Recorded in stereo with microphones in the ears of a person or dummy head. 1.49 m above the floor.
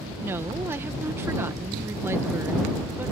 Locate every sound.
0.2 s a woman speaking: 10° right (ahead or behind)